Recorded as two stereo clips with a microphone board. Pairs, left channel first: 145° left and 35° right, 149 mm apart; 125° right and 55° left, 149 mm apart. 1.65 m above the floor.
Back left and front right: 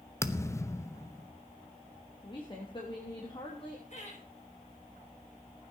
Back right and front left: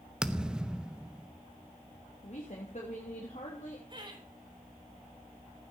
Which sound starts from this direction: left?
Laughter, at 3.9 s.